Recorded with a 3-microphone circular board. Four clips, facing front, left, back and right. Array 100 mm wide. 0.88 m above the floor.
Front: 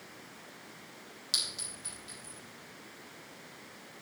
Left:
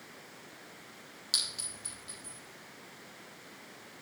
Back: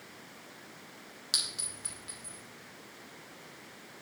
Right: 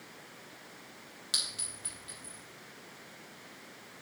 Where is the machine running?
I don't hear a machine running.